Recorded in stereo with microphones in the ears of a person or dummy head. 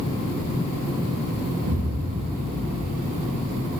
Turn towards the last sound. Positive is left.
turn(degrees=-55)  # may be behind; listen again after turning